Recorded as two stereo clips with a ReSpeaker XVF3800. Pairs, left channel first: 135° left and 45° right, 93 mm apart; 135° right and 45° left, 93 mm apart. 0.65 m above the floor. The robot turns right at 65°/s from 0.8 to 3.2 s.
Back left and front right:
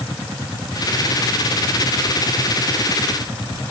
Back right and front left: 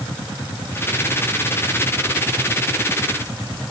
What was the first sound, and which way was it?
Only background noise.